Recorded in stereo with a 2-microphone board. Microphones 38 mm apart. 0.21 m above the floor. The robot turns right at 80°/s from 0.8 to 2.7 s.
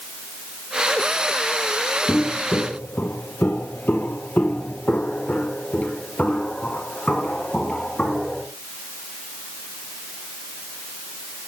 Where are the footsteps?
60° left (ahead or behind), 1.4 m; by 8.4 s 35° left (ahead or behind), 4.5 m.